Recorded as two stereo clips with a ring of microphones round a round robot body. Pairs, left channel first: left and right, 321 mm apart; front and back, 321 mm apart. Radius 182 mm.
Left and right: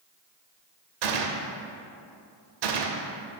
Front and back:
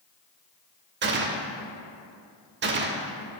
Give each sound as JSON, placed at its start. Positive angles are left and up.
{"t": 1.0, "sound": "a gunshot", "azimuth_deg": -120, "distance_m": 0.5}